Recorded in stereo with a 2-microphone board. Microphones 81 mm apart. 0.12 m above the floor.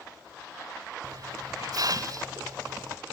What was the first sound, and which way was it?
A hiss, 55° right (ahead or behind).